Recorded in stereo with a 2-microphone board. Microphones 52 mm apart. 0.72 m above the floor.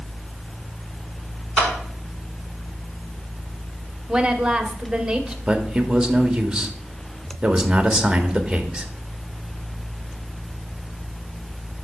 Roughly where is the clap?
Centre.